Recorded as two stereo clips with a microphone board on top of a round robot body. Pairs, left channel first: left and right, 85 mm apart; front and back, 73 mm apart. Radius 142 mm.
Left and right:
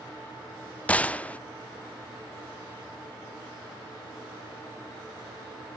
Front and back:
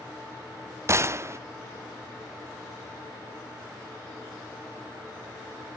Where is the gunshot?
155° left, 0.9 m.